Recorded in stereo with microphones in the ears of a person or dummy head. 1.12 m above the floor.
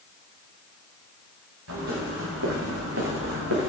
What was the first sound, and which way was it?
Footsteps, 70° right (ahead or behind).